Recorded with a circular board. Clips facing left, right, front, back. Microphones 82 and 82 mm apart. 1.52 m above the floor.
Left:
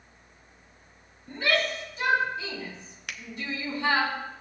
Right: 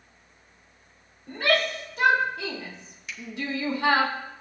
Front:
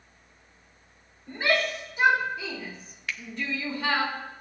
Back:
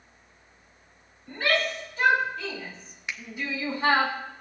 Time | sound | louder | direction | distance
1.3 | a shout | right 3 dB, even | 70° right | 4 m
3.1 | a finger snap | even, front 1 dB | 110° left | 0.6 m